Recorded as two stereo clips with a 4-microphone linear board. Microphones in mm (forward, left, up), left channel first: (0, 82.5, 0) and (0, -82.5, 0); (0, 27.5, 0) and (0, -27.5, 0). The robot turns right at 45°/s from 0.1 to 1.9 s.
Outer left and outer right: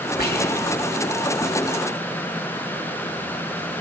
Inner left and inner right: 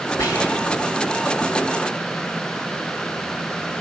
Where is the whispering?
80° left, 8 m; by 0.9 s 50° left (ahead or behind), 8 m.